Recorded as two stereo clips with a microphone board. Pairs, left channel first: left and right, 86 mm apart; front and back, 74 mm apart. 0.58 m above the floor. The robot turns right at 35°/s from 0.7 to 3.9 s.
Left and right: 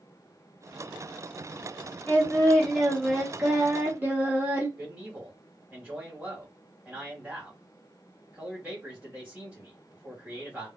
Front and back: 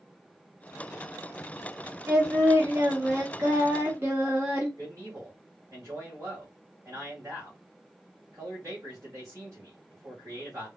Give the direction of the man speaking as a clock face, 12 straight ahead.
5 o'clock.